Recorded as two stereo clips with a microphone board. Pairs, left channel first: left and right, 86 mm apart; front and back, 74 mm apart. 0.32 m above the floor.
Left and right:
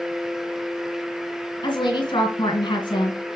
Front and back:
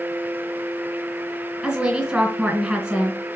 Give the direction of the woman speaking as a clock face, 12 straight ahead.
9 o'clock.